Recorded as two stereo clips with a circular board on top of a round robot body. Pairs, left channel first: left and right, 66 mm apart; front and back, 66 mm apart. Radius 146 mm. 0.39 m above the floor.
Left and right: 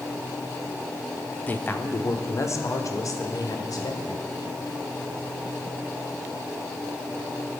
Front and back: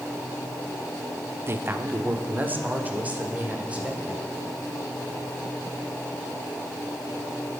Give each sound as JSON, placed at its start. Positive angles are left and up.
{"t": 1.5, "sound": "a man speaking", "azimuth_deg": 145, "distance_m": 1.1}